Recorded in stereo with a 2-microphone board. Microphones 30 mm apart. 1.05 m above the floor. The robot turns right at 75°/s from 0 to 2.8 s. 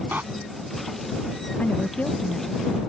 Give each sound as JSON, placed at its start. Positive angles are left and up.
{"t": 0.1, "sound": "a door slam", "side_deg": -75}
{"t": 1.6, "sound": "a woman speaking", "azimuth_deg": 80}